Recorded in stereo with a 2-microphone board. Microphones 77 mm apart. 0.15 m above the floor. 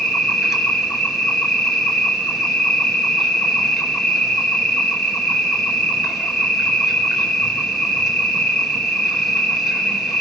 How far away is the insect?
About 2.5 m.